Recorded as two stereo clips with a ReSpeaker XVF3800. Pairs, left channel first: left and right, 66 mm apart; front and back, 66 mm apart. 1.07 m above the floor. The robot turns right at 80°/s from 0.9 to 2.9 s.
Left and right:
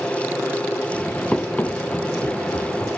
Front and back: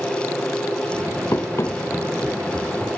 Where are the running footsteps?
15° left, 1.4 m; by 3.0 s 120° left, 3.5 m.